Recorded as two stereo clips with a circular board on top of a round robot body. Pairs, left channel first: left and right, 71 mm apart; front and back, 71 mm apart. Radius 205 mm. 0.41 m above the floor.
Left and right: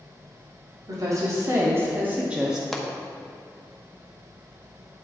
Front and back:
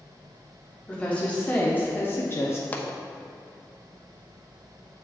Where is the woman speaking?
75° right, 1.6 m; by 2.6 s 10° right, 1.2 m.